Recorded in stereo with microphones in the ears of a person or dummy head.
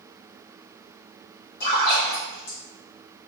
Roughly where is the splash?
Left.